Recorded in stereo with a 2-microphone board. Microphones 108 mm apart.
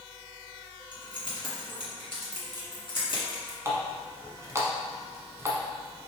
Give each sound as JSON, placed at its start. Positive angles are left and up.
{"t": 0.9, "sound": "keys jangling", "side_deg": 50, "distance_m": 1.7}
{"t": 3.6, "sound": "a running tap", "side_deg": -25, "distance_m": 0.9}